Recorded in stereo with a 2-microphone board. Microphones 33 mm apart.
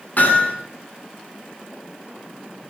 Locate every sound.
0.2 s hammering: 60° left (ahead or behind), 7.5 m